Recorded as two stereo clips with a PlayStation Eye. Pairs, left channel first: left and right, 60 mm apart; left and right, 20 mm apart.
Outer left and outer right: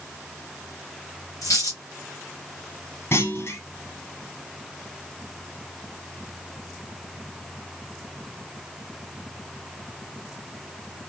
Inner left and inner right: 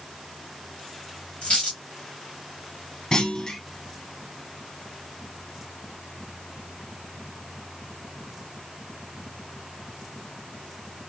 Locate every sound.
1.4 s a dropped coin: 65° left (ahead or behind), 1.6 m
3.1 s a clunk: 45° left (ahead or behind), 0.8 m